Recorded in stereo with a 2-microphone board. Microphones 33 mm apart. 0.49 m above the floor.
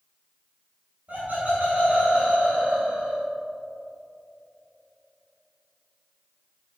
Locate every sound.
1.1 s laughter: 45° right (ahead or behind), 1.6 m; by 3.2 s 30° right (ahead or behind), 2 m